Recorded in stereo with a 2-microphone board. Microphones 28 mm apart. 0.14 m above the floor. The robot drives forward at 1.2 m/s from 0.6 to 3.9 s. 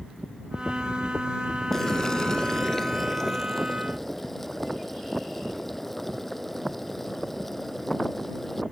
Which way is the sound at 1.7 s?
15° left (ahead or behind).